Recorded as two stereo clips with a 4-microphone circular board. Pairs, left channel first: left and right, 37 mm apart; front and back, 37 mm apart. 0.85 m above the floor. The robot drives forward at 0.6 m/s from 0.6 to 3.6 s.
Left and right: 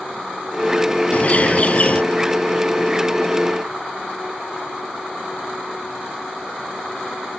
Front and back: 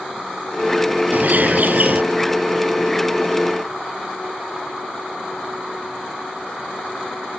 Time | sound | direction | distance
1.1 | a bird | 140° left | ?